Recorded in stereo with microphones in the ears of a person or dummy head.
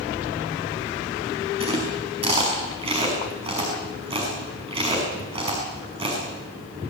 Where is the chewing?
25° right (ahead or behind), 5.5 m.